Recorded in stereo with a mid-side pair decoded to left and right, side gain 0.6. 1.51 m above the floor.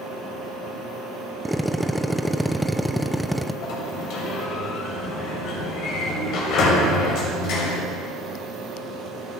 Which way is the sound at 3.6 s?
65° left.